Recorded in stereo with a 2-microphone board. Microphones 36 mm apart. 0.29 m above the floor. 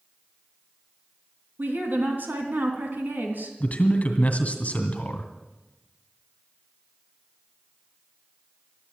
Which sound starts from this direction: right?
A woman speaking, at 1.6 s.